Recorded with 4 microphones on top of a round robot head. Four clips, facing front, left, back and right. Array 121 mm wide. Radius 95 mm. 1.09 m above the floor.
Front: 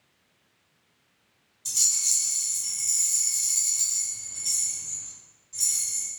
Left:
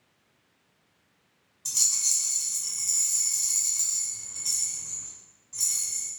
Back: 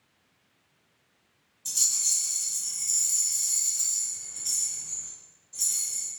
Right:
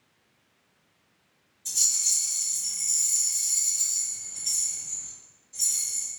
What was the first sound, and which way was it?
A rattle, 75° left.